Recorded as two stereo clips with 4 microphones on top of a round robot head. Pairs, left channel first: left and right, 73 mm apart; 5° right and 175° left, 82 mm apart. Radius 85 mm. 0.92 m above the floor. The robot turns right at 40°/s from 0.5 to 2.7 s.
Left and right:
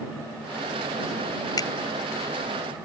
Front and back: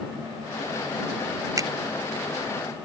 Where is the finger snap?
125° left; by 1.7 s 130° left.